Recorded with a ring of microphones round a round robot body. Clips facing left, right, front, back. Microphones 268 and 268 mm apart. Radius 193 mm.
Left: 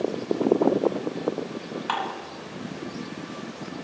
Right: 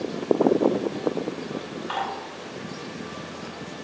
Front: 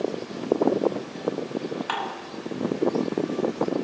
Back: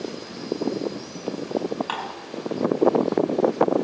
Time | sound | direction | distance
1.9 | dishes clattering | 85° left | 6 m